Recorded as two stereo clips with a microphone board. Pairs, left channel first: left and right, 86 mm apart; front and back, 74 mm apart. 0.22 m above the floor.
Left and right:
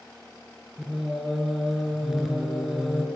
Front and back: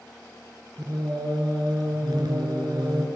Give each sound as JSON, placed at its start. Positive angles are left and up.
{"t": 0.8, "sound": "singing", "azimuth_deg": -175, "distance_m": 3.5}